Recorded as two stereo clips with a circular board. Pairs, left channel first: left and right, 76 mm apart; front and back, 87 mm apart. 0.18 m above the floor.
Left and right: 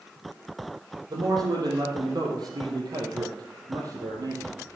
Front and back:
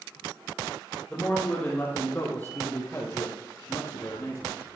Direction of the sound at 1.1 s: 75° right.